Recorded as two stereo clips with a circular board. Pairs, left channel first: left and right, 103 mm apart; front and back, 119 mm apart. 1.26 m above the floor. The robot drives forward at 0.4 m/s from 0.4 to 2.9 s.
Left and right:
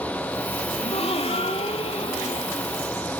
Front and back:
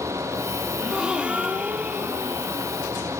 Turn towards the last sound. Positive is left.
turn(degrees=115)